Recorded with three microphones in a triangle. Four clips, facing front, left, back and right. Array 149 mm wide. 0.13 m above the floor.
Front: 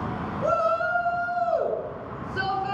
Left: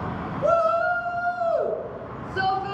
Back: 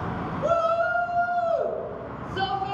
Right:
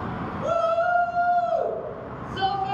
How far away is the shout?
About 1.7 m.